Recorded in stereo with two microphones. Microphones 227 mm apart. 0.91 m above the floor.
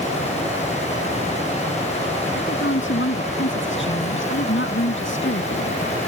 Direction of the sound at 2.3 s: 60° left (ahead or behind).